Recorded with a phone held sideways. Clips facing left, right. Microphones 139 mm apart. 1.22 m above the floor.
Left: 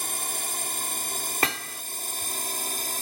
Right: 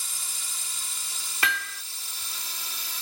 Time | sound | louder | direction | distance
0.0 | a drone | left 11 dB | 60° left (ahead or behind) | ?
1.4 | hammering | even | 40° left (ahead or behind) | ?